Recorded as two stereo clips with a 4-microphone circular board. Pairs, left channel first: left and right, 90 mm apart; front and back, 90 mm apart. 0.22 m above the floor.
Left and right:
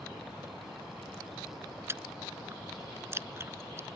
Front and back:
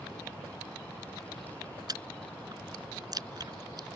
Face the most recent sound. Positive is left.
turn(degrees=-145)